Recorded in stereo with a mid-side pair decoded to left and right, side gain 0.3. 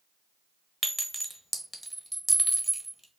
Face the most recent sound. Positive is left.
turn(degrees=-15)